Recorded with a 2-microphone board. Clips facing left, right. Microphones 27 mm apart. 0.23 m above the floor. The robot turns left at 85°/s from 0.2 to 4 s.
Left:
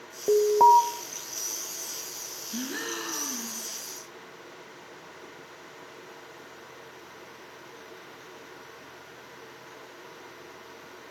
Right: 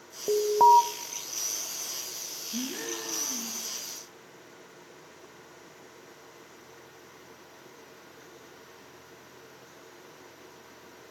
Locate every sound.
0.3 s an alarm: 15° left (ahead or behind), 0.8 m; by 0.8 s 5° right (ahead or behind), 0.8 m
2.5 s a gasp: 145° left, 2.5 m; by 3.7 s 50° left, 2.5 m